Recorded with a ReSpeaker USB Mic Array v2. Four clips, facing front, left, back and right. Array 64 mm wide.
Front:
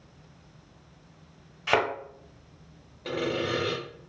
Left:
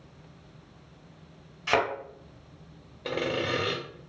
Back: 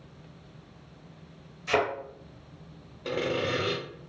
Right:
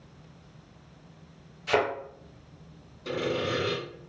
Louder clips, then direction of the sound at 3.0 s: Even, even; 90° left.